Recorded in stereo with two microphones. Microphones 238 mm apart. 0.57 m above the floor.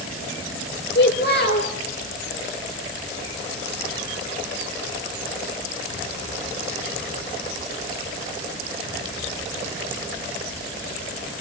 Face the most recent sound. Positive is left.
turn(degrees=45)  # may be behind; listen again after turning